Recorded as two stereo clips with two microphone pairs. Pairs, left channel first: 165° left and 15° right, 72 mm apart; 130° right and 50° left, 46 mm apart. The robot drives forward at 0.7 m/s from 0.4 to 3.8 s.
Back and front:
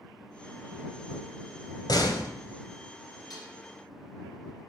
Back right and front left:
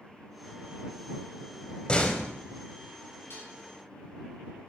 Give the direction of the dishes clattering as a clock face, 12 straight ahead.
5 o'clock.